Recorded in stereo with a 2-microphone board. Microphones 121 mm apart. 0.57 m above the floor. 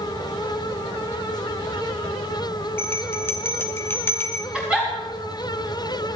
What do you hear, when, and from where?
2.8 s a bell: 20° left (ahead or behind), 1.1 m
4.5 s a giggle: 10° right (ahead or behind), 5 m